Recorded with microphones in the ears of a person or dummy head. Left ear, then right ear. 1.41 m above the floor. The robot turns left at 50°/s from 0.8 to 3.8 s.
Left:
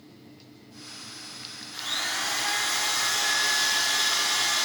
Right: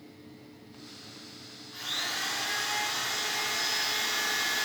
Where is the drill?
160° left, 2 m; by 4.7 s 55° left, 2 m.